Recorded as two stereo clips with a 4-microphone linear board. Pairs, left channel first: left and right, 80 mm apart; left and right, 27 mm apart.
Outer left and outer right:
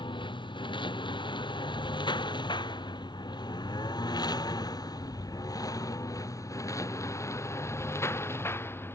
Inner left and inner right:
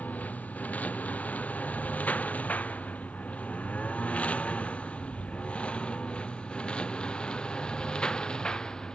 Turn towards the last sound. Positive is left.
turn(degrees=25)  # may be behind; listen again after turning